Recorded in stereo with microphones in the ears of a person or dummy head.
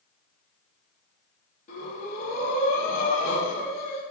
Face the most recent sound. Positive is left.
turn(degrees=45)  # may be behind; listen again after turning